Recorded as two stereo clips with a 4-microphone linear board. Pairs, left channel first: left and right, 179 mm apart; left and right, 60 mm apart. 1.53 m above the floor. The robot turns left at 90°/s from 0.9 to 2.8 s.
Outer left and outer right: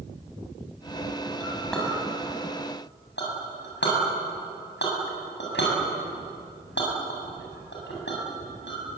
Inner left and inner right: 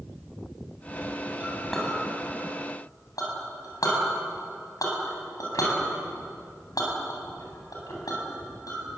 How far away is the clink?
About 7.5 m.